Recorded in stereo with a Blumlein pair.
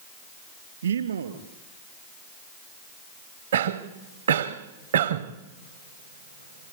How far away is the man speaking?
About 2 m.